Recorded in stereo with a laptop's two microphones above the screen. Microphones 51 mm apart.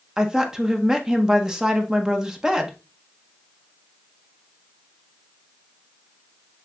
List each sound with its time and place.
0.2 s a woman speaking: 15° right (ahead or behind), 0.8 m